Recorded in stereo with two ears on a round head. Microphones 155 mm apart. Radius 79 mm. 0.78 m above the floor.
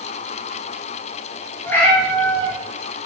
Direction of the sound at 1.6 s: 15° left (ahead or behind).